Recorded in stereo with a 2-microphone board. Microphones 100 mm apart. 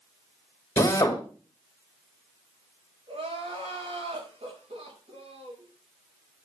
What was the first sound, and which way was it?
A drill, 25° left (ahead or behind).